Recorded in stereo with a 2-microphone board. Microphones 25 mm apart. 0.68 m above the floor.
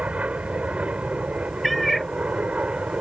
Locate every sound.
0.0 s an aircraft: 60° right (ahead or behind)
1.6 s a cat meowing: centre (ahead or behind)